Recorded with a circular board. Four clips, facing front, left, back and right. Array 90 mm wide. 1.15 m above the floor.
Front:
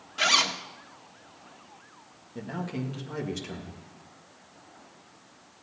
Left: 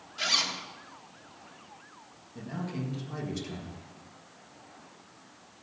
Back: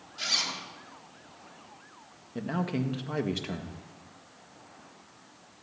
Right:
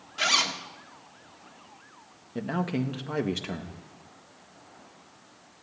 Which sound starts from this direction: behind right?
A man speaking, at 2.4 s.